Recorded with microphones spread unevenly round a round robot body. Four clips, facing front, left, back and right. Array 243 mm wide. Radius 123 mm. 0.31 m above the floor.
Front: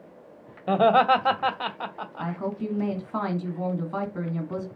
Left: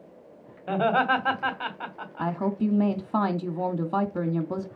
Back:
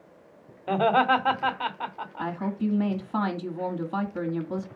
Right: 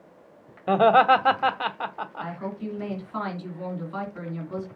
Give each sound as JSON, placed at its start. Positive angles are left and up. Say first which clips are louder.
{"t": 0.7, "sound": "laughter", "louder": "right 6 dB, front 3 dB", "azimuth_deg": -70, "distance_m": 1.8}
{"t": 2.2, "sound": "a woman speaking", "louder": "left 9 dB, back 2 dB", "azimuth_deg": 90, "distance_m": 2.0}